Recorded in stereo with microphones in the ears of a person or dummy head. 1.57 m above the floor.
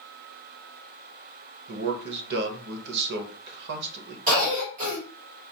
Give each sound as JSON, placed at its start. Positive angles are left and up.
{"t": 1.7, "sound": "a man speaking", "side_deg": -60, "distance_m": 0.7}
{"t": 4.3, "sound": "a cough", "side_deg": -35, "distance_m": 1.6}